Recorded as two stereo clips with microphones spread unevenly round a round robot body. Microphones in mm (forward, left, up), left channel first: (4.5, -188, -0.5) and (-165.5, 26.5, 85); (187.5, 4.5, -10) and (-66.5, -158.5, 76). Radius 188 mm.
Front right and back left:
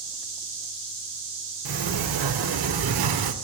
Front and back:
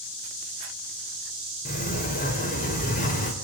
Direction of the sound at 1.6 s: 100° left.